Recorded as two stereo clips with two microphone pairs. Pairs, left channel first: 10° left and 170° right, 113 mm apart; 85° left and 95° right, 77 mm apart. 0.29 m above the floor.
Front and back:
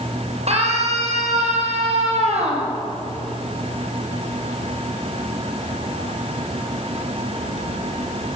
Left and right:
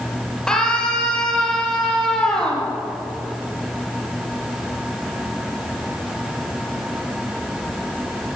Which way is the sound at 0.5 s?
170° left.